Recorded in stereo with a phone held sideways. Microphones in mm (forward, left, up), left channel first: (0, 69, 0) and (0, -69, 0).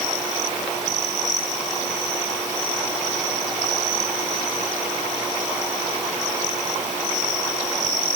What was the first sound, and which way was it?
Only background noise.